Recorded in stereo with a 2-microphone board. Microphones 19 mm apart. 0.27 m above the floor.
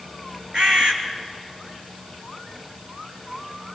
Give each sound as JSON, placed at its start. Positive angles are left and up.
{"t": 0.5, "sound": "a bird", "side_deg": -50, "distance_m": 3.0}